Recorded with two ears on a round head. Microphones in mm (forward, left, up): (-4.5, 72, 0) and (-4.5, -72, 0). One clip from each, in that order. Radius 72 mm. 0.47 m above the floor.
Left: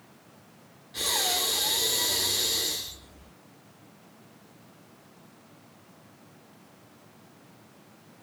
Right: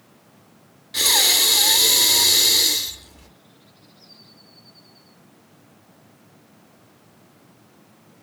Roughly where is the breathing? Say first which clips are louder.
Right 10 dB; right.